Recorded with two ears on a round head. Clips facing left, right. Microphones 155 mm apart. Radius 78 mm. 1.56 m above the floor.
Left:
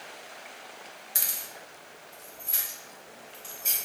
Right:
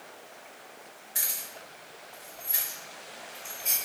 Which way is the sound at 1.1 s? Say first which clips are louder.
Right 2 dB; 50° left (ahead or behind).